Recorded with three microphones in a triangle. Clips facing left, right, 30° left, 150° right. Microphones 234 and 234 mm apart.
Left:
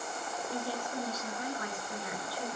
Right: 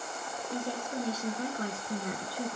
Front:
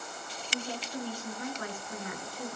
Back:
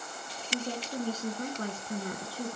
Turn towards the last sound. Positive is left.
turn(degrees=-100)